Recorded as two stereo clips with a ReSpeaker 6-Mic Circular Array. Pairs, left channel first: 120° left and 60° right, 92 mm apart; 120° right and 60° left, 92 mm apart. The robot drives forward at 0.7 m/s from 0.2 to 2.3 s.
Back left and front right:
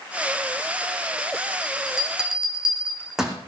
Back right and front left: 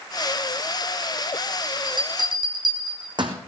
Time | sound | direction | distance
1.6 | a bell | 20° left | 3 m